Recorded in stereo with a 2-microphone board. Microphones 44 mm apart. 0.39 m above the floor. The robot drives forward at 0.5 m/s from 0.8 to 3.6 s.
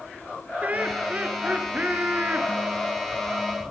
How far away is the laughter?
About 4.5 m.